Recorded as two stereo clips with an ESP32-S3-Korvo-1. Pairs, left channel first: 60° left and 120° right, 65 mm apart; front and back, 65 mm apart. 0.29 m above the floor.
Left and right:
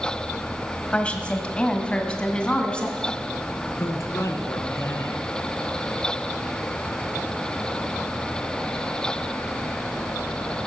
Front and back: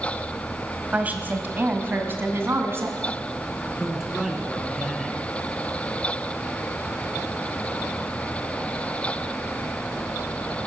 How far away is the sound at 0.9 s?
About 1.4 m.